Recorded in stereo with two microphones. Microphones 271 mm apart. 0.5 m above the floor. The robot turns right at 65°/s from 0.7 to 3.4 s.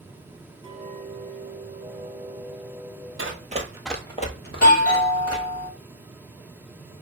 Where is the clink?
155° right, 1.3 m; by 3.1 s straight ahead, 1.3 m.